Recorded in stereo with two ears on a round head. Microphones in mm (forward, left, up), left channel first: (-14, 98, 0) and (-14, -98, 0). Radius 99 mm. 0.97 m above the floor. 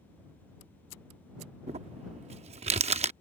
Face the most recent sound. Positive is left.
turn(degrees=-30)  # may be behind; listen again after turning